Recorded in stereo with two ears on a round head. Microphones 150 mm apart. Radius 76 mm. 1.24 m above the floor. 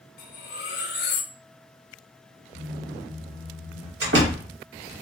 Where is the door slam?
70° right (ahead or behind), 1.4 m.